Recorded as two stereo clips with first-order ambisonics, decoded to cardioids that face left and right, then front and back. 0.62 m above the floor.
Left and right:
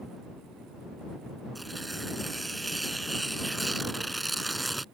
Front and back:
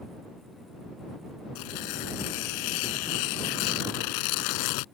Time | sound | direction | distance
1.6 | tearing paper | 5° right | ?